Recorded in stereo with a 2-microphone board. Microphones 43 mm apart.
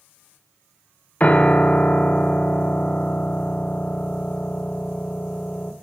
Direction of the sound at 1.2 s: 35° left (ahead or behind).